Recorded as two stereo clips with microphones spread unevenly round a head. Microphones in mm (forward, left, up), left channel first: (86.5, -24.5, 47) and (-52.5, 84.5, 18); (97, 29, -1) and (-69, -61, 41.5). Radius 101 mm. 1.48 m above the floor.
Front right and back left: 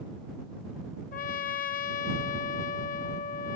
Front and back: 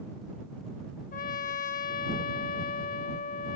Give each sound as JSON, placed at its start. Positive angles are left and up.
{"t": 1.1, "sound": "a trumpet", "azimuth_deg": -20}